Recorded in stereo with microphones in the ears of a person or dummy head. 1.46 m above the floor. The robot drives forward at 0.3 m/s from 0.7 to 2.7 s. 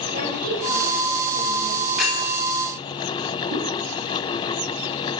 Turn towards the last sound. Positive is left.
turn(degrees=-80)